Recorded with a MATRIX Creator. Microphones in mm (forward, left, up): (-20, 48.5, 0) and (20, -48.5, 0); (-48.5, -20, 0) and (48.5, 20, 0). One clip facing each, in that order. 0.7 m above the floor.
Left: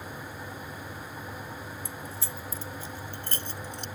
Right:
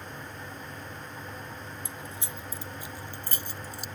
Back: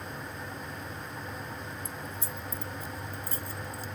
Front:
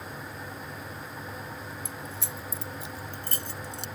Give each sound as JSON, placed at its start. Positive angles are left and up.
{"t": 1.9, "sound": "keys jangling", "azimuth_deg": 0}